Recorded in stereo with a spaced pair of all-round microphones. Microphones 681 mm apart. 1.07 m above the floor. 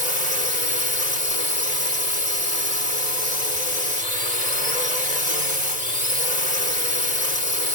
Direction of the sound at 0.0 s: 75° left (ahead or behind).